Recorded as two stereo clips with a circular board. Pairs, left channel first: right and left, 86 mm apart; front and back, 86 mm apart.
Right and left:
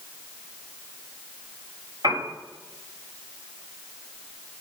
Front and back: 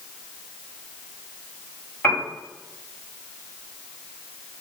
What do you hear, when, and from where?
2.0 s a piano: 65° left, 1.3 m